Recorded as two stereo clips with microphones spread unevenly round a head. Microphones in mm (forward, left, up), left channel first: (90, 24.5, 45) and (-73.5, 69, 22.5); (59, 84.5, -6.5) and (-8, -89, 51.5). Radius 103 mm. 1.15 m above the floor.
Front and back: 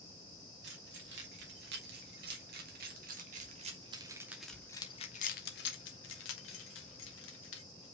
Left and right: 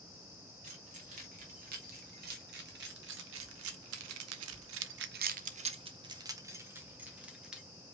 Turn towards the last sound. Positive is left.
turn(degrees=-25)